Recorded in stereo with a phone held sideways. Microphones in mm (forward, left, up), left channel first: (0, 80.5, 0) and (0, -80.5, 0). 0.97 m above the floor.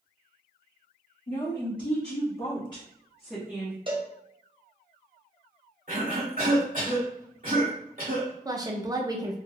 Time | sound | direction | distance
1.3 | a woman speaking | 65° left (ahead or behind) | 1.5 m
3.9 | a cowbell | 30° right (ahead or behind) | 0.6 m
5.9 | a cough | 55° right (ahead or behind) | 2.0 m
8.4 | a woman speaking | 20° right (ahead or behind) | 0.6 m